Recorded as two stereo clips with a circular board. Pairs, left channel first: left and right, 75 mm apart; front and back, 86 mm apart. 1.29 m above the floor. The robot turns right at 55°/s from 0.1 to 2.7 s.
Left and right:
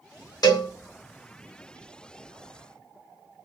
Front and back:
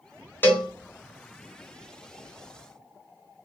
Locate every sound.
0.4 s a cowbell: 65° left, 0.7 m; by 0.7 s 80° left, 0.7 m